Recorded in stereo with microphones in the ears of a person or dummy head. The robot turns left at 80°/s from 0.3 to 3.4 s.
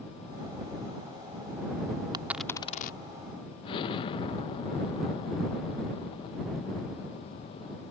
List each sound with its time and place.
2.1 s a dropped coin: 20° right (ahead or behind); by 3.0 s 35° left (ahead or behind)
3.6 s an explosion: 35° left (ahead or behind)